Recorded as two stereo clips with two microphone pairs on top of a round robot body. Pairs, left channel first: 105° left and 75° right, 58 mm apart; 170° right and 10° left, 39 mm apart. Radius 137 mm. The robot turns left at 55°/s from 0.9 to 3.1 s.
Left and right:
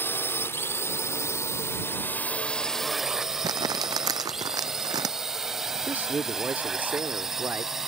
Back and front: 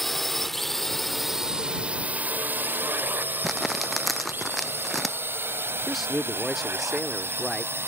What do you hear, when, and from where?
0.0 s a drone: 110° left; by 7.9 s 5° left
3.4 s crumpling: 80° right
5.9 s a man speaking: 75° right